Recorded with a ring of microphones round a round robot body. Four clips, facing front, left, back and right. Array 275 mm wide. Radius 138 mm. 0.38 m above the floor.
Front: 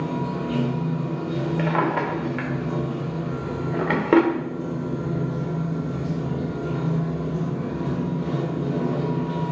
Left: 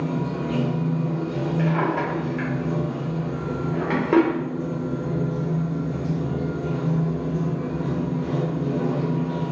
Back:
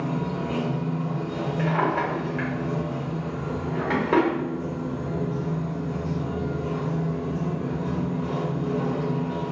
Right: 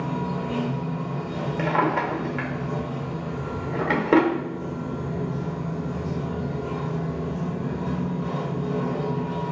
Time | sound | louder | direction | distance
0.0 | running water | left 2 dB, front 1 dB | 50° left | 1.8 m
1.6 | a drawer | right 2 dB, even | 30° right | 0.7 m